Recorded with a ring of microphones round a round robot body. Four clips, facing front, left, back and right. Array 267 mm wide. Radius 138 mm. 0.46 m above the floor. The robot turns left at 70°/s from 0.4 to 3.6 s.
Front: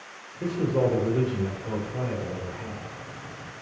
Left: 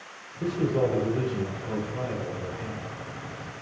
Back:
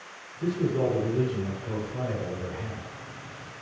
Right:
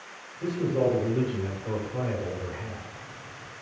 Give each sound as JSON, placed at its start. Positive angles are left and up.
{"t": 0.4, "sound": "a man speaking", "azimuth_deg": 40, "distance_m": 2.0}